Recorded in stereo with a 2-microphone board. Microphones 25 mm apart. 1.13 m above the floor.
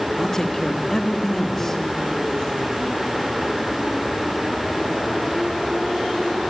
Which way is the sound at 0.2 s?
20° left (ahead or behind).